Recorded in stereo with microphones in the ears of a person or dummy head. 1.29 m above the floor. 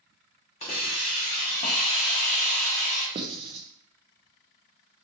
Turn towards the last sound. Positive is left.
turn(degrees=-25)  # may be behind; listen again after turning